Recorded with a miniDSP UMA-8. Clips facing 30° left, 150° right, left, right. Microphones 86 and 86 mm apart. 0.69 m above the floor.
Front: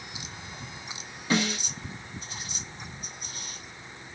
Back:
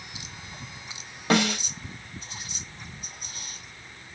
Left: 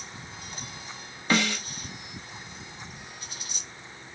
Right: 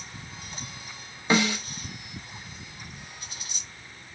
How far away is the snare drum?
About 1.6 m.